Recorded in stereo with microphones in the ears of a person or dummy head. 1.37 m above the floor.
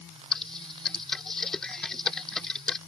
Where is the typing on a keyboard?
5° left (ahead or behind).